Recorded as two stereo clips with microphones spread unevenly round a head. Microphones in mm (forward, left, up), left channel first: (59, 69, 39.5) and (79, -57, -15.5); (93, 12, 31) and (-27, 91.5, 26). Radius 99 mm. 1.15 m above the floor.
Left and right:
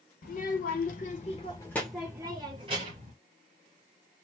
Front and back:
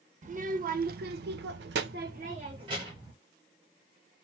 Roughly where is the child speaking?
Left.